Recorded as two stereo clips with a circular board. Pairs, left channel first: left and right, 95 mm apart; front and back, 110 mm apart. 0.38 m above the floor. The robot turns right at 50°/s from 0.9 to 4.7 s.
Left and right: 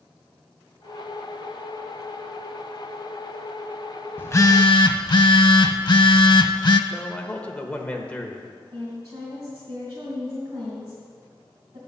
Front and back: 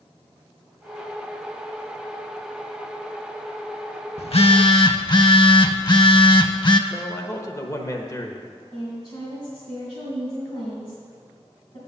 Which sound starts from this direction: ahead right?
A woman speaking, at 8.7 s.